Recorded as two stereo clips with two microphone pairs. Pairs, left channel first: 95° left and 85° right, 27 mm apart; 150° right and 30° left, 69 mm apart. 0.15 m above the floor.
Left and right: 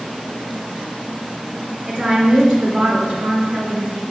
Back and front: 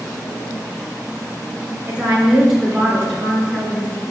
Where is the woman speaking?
35° right, 2.5 m; by 4.0 s 80° right, 3 m.